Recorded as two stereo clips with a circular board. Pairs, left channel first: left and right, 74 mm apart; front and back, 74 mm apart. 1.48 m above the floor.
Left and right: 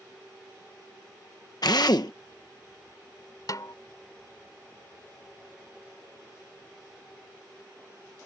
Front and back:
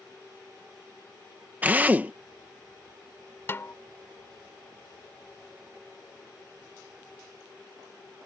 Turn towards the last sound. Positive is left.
turn(degrees=60)